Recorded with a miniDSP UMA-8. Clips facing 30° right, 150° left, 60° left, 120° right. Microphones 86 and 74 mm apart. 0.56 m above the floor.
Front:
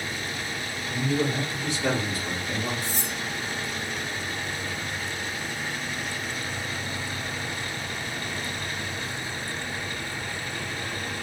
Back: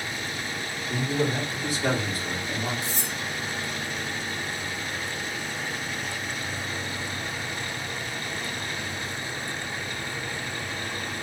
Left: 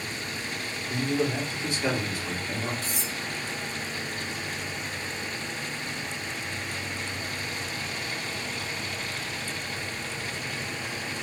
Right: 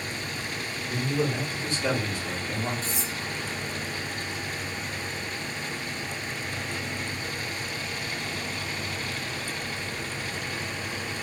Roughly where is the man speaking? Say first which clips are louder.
Even, left 1 dB; left.